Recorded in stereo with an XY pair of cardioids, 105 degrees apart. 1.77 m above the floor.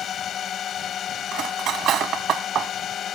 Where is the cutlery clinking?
65° right.